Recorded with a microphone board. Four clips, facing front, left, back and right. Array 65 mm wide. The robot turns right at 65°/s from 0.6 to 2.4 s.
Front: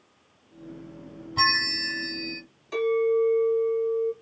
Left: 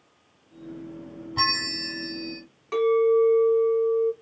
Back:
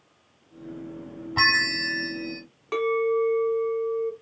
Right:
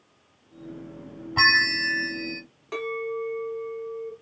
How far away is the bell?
About 0.9 m.